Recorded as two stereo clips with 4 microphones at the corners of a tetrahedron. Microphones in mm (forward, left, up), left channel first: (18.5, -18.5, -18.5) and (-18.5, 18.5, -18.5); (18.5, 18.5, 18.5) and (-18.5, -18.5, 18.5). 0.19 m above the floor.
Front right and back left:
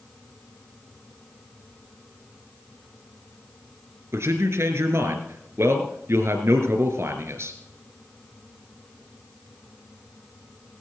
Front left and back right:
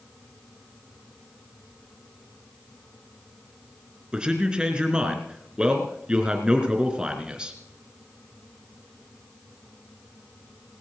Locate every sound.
4.1 s a man speaking: 155° left, 3 m